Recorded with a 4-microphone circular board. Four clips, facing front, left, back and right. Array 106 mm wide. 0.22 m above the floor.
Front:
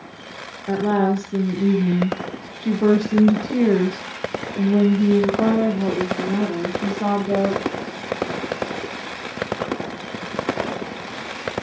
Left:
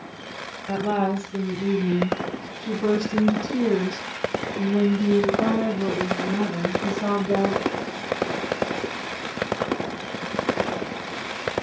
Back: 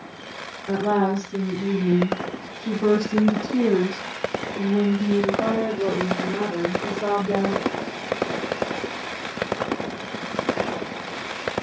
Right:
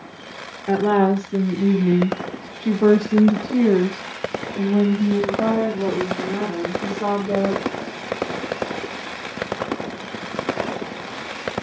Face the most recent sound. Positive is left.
turn(degrees=-15)